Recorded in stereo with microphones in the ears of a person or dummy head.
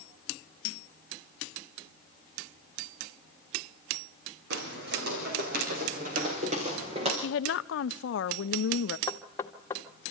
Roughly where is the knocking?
Centre.